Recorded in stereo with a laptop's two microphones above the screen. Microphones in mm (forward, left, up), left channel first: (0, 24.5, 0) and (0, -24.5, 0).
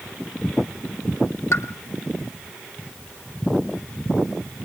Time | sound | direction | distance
1.5 | a pop | 65° left (ahead or behind) | 1.1 m